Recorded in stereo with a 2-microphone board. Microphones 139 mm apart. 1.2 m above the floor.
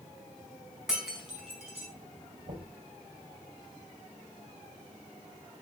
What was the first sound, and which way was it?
Breaking glass, 5° right (ahead or behind).